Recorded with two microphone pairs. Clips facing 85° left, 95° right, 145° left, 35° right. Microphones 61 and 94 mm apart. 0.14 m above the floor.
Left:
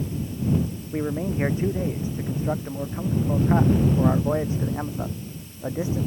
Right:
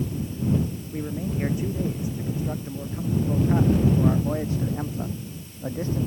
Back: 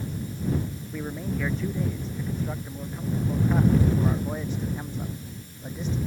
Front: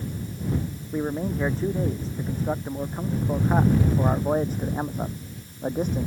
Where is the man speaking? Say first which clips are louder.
Left 5 dB, front 6 dB; 25° left; by 6.1 s 5° left.